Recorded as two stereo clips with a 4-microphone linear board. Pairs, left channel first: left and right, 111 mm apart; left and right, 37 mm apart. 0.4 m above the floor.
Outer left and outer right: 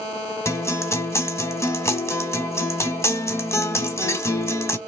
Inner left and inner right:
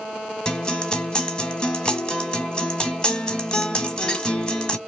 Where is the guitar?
25° left (ahead or behind), 0.8 m.